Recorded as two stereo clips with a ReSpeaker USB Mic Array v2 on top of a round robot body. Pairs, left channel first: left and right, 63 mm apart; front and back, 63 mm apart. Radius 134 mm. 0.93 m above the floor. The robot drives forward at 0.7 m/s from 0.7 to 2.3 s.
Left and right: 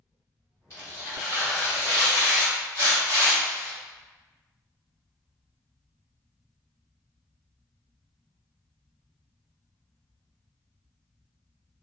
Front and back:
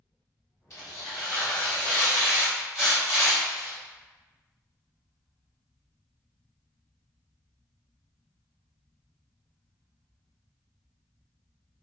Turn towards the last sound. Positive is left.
turn(degrees=95)